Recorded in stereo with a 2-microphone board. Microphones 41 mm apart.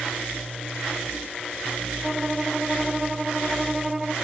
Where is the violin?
15° right (ahead or behind).